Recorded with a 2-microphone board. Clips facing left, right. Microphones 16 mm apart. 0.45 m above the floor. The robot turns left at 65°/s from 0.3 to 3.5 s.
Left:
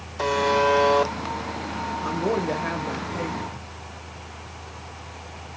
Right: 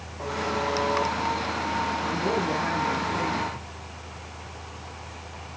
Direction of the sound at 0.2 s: 110° left.